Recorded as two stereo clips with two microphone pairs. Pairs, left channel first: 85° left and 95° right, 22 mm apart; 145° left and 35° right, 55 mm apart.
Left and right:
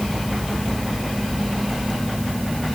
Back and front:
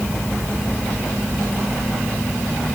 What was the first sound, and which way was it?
Only background noise.